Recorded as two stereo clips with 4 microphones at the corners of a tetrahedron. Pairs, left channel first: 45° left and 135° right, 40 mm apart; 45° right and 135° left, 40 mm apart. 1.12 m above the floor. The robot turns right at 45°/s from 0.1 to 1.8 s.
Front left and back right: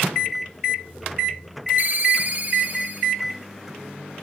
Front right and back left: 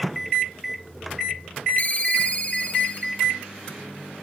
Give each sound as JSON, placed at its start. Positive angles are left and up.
{"t": 1.8, "sound": "a ringtone", "azimuth_deg": -95, "distance_m": 1.8}